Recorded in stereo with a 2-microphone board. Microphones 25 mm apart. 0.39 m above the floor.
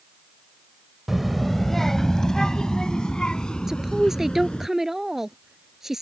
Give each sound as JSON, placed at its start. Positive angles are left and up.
{"t": 1.1, "sound": "a child speaking", "side_deg": -5}
{"t": 3.7, "sound": "a woman speaking", "side_deg": -10}